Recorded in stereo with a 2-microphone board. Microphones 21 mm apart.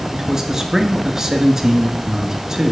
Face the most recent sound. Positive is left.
turn(degrees=-25)  # may be behind; listen again after turning